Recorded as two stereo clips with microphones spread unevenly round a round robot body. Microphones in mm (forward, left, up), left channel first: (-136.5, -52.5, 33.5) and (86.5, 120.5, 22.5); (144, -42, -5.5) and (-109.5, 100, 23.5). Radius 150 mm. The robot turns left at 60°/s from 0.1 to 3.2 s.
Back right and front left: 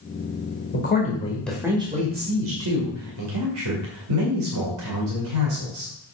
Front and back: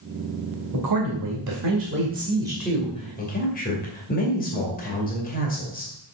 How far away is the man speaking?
About 2 m.